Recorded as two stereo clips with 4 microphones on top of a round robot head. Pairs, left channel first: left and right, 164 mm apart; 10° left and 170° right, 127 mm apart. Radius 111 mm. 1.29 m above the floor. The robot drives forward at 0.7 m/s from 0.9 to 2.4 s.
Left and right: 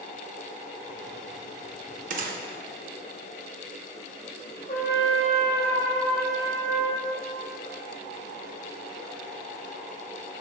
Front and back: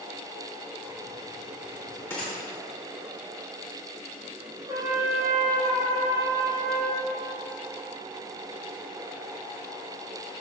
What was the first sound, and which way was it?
A gunshot, 65° right.